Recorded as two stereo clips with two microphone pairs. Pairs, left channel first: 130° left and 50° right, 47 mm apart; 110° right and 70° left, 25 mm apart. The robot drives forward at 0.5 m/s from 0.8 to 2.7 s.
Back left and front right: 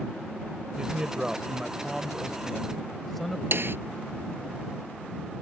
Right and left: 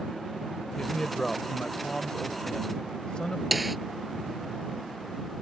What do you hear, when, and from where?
0.8 s a man speaking: 85° right; by 3.4 s 140° right
3.5 s a snare drum: 15° right